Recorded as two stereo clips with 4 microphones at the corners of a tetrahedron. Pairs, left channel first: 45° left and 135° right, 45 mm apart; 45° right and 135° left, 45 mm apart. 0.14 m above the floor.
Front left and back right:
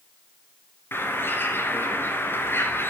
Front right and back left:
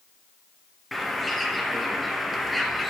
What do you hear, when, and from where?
0.9 s a bird: 40° left, 3 m